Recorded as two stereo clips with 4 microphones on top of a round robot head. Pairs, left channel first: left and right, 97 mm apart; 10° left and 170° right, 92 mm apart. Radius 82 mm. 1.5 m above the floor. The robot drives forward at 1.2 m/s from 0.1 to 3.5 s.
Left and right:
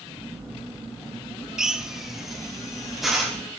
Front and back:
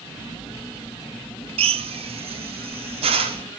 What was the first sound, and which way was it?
A drill, 175° right.